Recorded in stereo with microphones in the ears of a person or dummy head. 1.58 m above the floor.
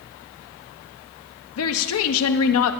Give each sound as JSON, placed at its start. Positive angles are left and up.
{"t": 1.6, "sound": "a woman speaking", "side_deg": 80, "distance_m": 1.0}